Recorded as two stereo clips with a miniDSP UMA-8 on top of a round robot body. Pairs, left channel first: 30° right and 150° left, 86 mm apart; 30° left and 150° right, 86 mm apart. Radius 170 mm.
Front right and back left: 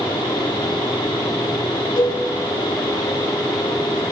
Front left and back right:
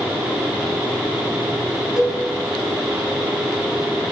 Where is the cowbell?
65° right, 7 m.